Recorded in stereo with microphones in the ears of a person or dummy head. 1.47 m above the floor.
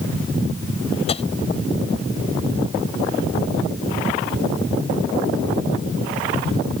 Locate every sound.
1.1 s tapping: 35° left (ahead or behind)